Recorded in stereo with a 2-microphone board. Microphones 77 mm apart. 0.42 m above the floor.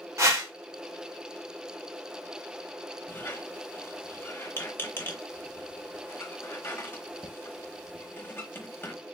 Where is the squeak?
30° left (ahead or behind), 1.1 m.